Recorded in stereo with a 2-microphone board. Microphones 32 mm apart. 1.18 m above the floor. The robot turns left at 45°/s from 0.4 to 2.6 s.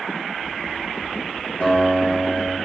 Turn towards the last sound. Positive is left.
turn(degrees=40)